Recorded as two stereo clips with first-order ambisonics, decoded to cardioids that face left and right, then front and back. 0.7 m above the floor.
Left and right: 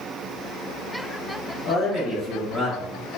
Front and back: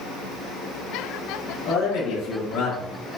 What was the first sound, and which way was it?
A man speaking, 25° left.